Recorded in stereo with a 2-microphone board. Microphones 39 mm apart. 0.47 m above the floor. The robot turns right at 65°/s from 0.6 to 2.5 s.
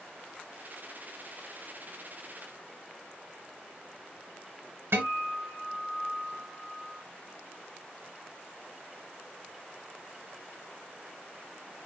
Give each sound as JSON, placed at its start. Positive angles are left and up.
{"t": 4.9, "sound": "a guitar", "side_deg": -70, "distance_m": 0.8}